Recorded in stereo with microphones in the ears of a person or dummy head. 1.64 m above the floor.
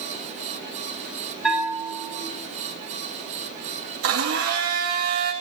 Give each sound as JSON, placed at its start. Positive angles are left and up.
{"t": 1.4, "sound": "a bell", "side_deg": 0, "distance_m": 6.0}
{"t": 4.0, "sound": "a blender", "side_deg": -75, "distance_m": 2.5}